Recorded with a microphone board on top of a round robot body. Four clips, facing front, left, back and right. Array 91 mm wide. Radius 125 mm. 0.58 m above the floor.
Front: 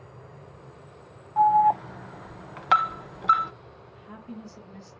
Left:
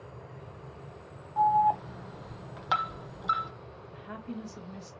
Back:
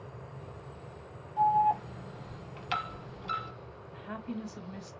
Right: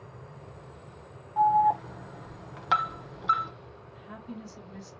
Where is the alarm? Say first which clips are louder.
Right 2 dB, front 6 dB; 5° right, 0.8 m.